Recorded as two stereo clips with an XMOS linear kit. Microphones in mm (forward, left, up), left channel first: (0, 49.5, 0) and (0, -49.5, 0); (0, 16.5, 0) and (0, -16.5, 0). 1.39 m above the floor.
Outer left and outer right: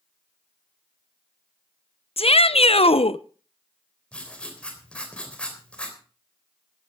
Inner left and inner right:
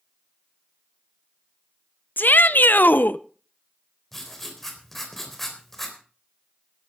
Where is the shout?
75° left (ahead or behind), 0.8 m.